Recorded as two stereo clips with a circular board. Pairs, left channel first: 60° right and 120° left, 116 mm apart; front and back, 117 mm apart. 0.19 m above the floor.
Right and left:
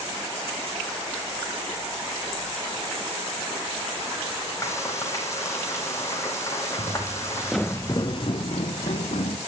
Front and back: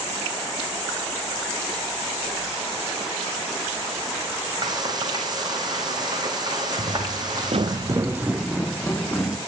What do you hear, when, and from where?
4.6 s frying: 125° right, 4 m
6.8 s footsteps: 160° left, 1.3 m; by 9.4 s 80° right, 2.5 m